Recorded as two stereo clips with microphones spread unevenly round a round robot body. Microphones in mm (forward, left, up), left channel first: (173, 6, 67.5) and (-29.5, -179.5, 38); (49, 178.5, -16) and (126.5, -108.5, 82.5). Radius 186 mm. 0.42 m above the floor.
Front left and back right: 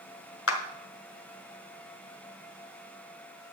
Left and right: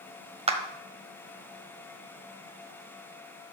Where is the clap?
Straight ahead, 1.7 m.